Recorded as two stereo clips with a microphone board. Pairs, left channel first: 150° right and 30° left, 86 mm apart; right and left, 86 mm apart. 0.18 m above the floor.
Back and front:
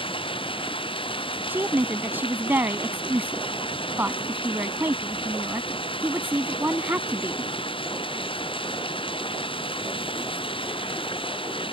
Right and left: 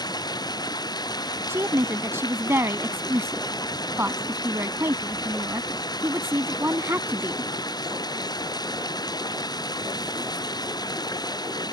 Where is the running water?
135° right.